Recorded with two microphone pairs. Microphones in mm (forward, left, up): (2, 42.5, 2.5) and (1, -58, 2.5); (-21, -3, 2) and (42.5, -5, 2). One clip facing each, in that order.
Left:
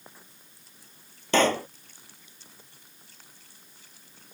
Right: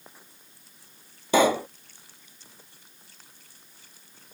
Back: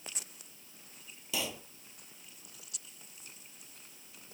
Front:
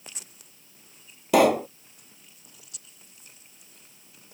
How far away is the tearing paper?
I don't hear tearing paper.